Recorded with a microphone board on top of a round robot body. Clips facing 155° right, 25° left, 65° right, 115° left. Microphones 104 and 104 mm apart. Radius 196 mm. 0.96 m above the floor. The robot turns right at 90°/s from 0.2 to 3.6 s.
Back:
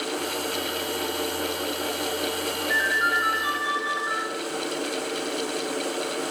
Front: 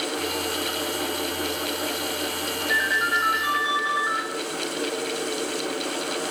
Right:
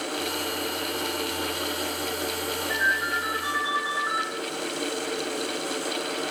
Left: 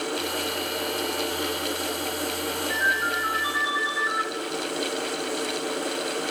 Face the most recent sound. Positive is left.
turn(degrees=-15)